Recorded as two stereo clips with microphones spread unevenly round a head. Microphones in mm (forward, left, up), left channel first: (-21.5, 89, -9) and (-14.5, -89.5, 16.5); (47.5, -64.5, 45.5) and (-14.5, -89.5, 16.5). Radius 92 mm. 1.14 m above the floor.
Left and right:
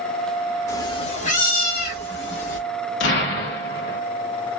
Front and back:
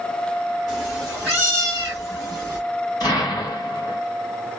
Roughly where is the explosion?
Ahead left.